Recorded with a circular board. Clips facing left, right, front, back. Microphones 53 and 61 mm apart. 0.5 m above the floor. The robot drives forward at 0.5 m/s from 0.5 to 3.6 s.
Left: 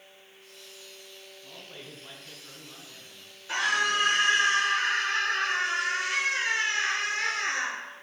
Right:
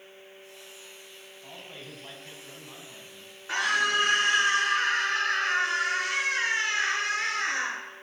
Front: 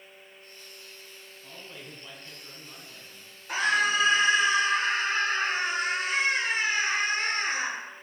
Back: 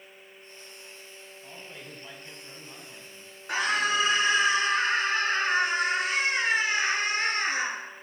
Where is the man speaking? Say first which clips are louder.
Right 2 dB, even; 120° right, 4.5 m; by 3.3 s 130° right, 5 m.